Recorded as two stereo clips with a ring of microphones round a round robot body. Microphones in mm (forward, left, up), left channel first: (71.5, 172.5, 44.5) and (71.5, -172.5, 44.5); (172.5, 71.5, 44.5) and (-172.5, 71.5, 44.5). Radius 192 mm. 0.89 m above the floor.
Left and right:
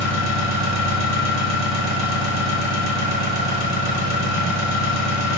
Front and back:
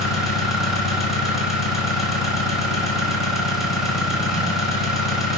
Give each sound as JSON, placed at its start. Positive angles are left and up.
{"t": 0.0, "sound": "an engine running", "azimuth_deg": 90, "distance_m": 0.9}